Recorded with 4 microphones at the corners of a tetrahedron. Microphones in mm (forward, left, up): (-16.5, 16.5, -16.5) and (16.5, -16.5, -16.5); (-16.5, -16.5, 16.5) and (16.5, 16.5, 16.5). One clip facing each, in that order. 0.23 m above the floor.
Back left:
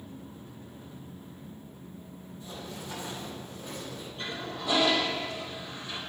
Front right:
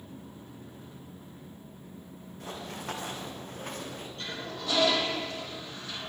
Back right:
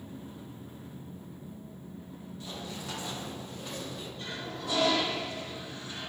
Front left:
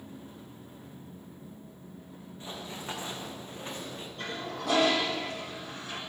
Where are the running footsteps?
20° right, 7.5 m; by 4.1 s 10° right, 7.5 m.